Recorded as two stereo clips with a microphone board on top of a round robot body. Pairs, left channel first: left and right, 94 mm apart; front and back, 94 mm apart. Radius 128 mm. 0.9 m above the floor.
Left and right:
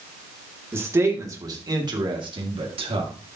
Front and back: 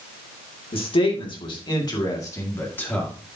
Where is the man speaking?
25° right, 2.5 m; by 3.1 s 80° right, 2 m.